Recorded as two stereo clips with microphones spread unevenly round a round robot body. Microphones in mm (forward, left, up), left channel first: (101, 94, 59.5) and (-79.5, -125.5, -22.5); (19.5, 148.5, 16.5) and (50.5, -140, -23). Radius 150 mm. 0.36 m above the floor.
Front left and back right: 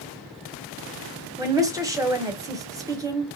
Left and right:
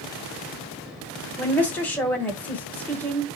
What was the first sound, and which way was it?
A woman speaking, 170° right.